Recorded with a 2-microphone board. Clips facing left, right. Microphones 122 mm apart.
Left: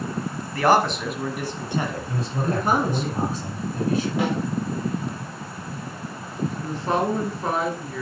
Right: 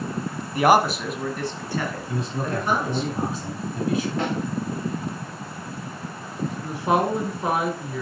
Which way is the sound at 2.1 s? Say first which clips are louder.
Left 1 dB; 30° left (ahead or behind).